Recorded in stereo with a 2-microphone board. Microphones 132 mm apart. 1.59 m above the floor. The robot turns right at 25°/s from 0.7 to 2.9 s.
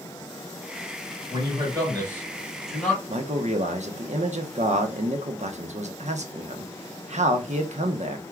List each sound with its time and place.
1.3 s a man speaking: 35° right, 3.5 m; by 3.0 s 5° left, 3.5 m
3.1 s a man speaking: 60° right (ahead or behind), 0.9 m